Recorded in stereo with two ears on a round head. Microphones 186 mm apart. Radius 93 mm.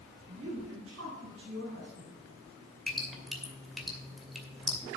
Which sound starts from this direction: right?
A woman speaking, at 0.3 s.